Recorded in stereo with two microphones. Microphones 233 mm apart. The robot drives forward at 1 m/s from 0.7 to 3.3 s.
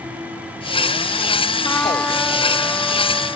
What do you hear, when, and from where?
1.6 s a trumpet: 10° left (ahead or behind); by 3.4 s 5° left (ahead or behind)